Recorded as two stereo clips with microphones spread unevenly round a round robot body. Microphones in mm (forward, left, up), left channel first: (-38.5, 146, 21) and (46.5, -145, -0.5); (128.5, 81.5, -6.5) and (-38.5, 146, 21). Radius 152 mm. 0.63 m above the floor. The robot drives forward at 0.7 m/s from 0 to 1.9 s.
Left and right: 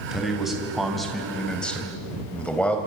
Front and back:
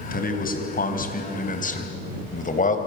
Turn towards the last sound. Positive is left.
turn(degrees=20)